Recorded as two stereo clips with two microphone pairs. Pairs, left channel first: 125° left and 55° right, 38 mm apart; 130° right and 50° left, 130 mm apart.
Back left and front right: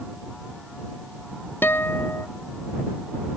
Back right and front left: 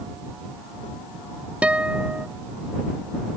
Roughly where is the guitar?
Behind left.